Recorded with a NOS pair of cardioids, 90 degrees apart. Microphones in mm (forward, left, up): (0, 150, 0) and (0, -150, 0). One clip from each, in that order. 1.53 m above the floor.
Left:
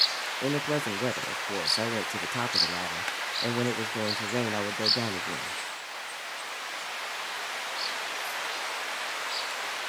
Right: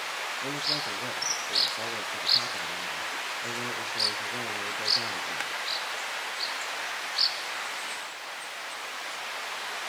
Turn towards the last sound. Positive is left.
turn(degrees=50)